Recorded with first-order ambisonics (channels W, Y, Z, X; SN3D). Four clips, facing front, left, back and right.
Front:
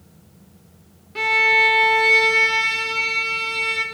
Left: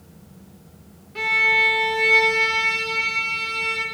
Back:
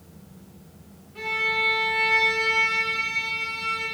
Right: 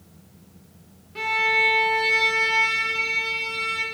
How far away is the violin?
About 0.5 m.